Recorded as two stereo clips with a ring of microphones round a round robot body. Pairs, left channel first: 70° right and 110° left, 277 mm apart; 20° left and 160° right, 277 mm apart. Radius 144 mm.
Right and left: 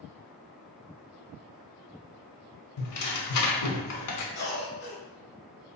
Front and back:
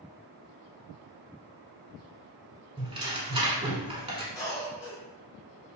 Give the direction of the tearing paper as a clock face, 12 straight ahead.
3 o'clock.